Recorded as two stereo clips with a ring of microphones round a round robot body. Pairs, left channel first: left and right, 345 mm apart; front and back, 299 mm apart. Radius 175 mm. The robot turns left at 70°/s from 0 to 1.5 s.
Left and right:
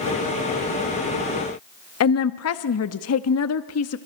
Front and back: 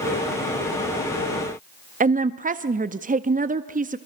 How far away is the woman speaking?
About 0.9 m.